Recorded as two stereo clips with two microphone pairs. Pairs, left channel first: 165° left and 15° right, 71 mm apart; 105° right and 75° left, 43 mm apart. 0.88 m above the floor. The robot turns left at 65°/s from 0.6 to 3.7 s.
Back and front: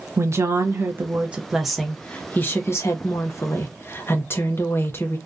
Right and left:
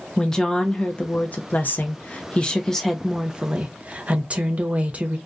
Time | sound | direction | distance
0.2 | a woman speaking | 30° right | 0.6 m